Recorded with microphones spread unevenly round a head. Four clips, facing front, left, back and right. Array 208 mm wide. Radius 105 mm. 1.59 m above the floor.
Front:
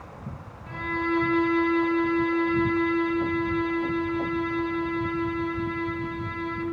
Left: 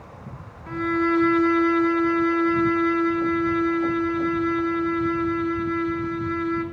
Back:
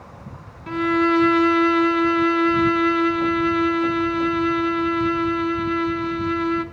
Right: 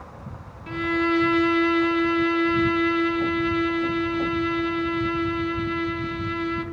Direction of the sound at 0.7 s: 170° right.